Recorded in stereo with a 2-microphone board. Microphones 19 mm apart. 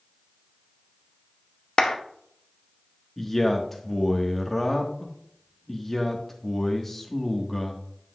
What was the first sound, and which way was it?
A clap, 50° left (ahead or behind).